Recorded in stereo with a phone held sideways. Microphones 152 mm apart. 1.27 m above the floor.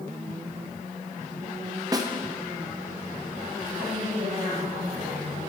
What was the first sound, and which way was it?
A snare drum, 25° right (ahead or behind).